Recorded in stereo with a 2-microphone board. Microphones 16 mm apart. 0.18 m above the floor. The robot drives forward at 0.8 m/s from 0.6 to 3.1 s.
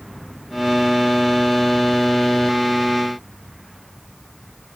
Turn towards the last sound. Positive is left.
No sound to turn to.